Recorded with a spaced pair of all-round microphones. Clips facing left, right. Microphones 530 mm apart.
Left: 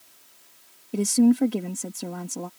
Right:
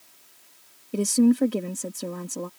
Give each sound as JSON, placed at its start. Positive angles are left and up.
{"t": 0.9, "sound": "a woman speaking", "side_deg": 5}